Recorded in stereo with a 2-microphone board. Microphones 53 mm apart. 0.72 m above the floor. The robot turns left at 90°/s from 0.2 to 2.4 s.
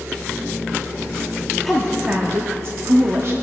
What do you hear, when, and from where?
1.6 s a woman speaking: 10° left, 1.1 m; by 3.3 s 60° right, 1.1 m